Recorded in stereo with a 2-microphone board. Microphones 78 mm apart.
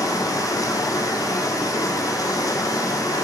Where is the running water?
45° left (ahead or behind), 0.8 m.